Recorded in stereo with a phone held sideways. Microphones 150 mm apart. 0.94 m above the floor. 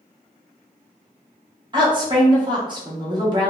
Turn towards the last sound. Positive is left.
turn(degrees=-30)  # may be behind; listen again after turning